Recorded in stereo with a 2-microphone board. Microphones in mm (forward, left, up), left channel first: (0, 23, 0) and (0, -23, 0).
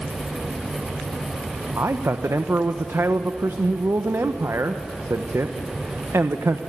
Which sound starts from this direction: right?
A man speaking, at 1.8 s.